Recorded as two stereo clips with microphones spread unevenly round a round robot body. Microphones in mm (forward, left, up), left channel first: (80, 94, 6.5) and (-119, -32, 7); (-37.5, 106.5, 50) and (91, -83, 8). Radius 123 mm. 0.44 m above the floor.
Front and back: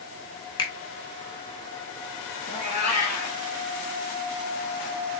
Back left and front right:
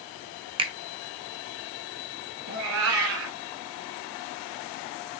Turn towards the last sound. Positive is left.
turn(degrees=-35)